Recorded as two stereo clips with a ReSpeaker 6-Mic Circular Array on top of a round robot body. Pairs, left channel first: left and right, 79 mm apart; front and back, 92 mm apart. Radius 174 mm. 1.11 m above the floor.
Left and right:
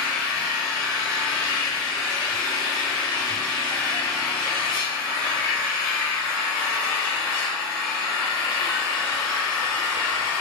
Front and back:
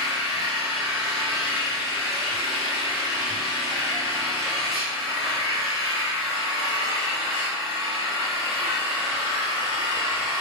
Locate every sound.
0.0 s an engine running: 120° left, 1.0 m